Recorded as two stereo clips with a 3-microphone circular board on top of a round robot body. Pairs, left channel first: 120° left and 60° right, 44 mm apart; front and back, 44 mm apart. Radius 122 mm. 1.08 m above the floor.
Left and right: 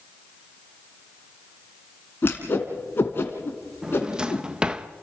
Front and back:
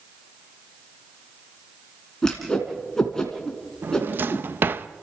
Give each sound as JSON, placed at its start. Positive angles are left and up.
{"t": 2.2, "sound": "a whoosh", "azimuth_deg": 80, "distance_m": 2.5}
{"t": 3.8, "sound": "a drawer", "azimuth_deg": -135, "distance_m": 0.6}